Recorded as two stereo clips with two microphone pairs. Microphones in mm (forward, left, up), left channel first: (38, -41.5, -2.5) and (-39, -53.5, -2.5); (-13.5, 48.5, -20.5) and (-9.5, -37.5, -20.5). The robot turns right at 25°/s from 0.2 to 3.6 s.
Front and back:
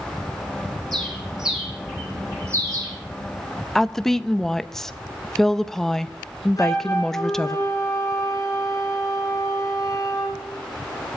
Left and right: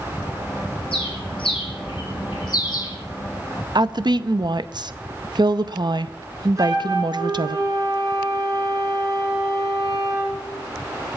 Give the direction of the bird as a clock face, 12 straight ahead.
9 o'clock.